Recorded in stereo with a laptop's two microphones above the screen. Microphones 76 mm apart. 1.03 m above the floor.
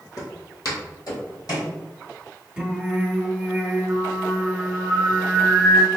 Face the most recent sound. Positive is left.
turn(degrees=-10)  # may be behind; listen again after turning